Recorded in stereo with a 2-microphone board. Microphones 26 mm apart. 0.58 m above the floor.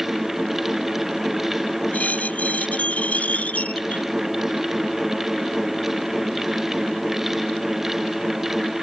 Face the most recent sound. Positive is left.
turn(degrees=70)  # may be behind; listen again after turning